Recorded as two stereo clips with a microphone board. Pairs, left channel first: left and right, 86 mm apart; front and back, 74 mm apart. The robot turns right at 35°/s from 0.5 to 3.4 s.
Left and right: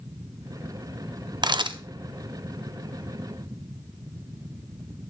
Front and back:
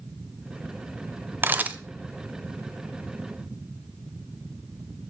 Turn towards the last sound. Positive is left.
turn(degrees=-50)